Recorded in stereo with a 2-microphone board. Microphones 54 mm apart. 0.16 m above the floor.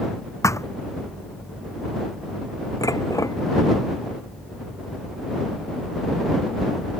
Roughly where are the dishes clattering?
Left.